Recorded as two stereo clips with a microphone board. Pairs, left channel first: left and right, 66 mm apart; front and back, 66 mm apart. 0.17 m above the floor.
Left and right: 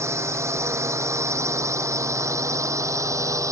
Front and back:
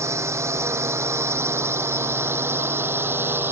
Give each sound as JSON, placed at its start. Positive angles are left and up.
{"t": 0.0, "sound": "a drone", "azimuth_deg": -135}